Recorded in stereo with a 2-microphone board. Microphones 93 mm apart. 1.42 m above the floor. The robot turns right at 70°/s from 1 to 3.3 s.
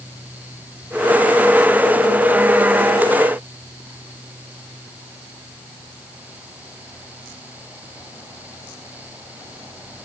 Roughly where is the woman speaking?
I don't hear a woman speaking.